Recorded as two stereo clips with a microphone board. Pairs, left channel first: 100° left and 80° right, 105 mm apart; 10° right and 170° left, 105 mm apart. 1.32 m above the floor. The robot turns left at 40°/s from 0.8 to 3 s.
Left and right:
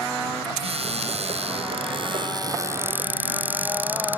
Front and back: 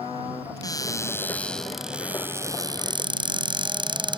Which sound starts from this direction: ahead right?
A cupboard door, at 0.6 s.